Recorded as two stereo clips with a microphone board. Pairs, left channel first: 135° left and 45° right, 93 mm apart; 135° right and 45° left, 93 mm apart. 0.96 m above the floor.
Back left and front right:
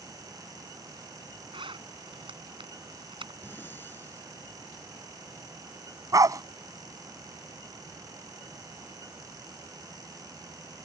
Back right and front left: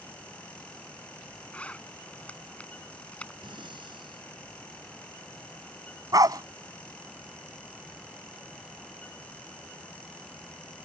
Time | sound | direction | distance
1.5 | a zipper | 60° right | ?
3.4 | breathing | 70° left | ?
6.1 | a dog barking | straight ahead | ?